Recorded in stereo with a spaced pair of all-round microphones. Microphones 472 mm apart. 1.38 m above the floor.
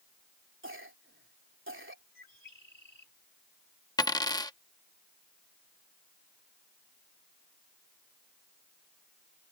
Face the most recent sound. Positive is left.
turn(degrees=10)  # may be behind; listen again after turning